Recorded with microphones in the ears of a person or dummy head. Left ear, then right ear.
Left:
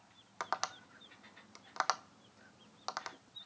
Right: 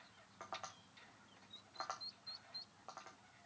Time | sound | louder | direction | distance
0.4 | tapping | left 11 dB | 65° left (ahead or behind) | 0.5 m